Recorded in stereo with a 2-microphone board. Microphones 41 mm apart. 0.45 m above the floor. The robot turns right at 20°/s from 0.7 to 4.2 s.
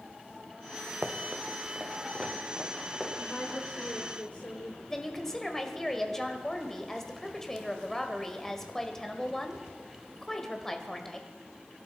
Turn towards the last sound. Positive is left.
turn(degrees=10)  # may be behind; listen again after turning